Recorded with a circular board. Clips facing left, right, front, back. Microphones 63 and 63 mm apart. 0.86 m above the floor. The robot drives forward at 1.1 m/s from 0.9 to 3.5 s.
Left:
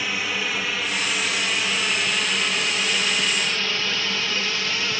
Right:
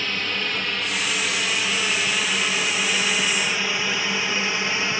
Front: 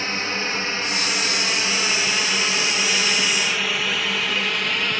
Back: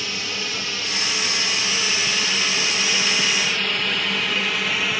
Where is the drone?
15° left; by 5.0 s 100° right.